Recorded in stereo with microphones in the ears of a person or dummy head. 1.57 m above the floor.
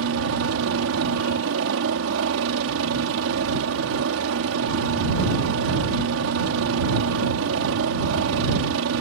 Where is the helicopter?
70° right (ahead or behind).